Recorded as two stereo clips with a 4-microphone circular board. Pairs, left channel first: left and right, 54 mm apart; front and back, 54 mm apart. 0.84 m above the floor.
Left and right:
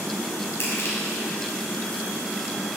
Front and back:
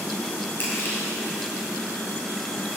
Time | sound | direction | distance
0.6 | crushing | 50° left | 4 m